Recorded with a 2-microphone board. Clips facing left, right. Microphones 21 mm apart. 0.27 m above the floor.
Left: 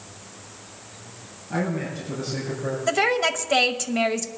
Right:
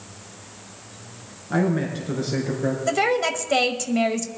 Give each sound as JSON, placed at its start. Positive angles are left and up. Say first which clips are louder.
{"t": 1.5, "sound": "a man speaking", "louder": "right 4 dB", "side_deg": -35, "distance_m": 3.0}
{"t": 2.9, "sound": "a woman speaking", "louder": "left 1 dB", "side_deg": 5, "distance_m": 0.9}